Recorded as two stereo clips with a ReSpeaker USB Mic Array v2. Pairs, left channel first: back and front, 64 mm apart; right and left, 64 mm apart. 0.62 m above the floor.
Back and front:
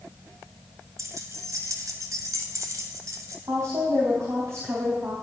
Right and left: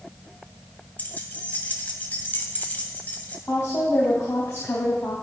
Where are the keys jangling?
25° right, 2.5 m.